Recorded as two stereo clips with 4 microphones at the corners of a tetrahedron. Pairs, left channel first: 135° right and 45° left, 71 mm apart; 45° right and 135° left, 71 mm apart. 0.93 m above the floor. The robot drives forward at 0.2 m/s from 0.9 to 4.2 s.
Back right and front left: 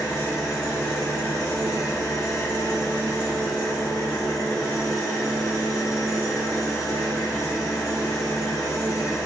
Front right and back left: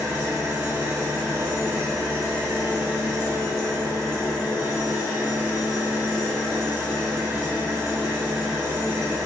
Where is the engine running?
175° left, 2 m; by 9.3 s straight behind, 2.5 m.